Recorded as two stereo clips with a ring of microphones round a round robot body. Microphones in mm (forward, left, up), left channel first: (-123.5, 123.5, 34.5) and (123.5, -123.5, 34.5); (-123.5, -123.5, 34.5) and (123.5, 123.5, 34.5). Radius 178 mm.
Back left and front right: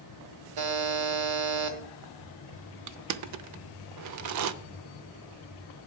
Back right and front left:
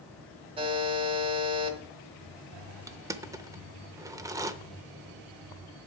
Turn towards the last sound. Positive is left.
turn(degrees=-35)